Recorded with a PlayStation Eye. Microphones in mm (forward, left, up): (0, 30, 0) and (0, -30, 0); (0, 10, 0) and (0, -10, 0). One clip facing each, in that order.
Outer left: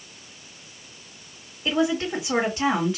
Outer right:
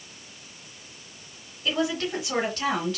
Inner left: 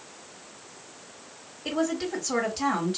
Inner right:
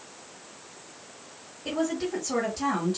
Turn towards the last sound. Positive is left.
turn(degrees=15)  # may be behind; listen again after turning